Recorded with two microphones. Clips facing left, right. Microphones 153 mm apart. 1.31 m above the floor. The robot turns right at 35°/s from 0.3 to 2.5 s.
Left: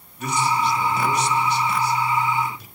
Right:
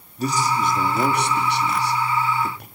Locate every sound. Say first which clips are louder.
0.2 s a man speaking: even; 35° right (ahead or behind), 3 m; by 2.7 s 65° right (ahead or behind), 3 m